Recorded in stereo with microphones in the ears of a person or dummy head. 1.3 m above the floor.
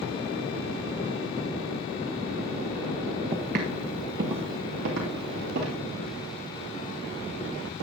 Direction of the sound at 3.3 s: 30° right (ahead or behind).